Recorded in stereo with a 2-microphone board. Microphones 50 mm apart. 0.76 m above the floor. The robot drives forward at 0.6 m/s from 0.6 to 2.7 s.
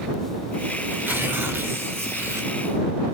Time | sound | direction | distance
0.9 | tearing paper | 45° right (ahead or behind) | 2.5 m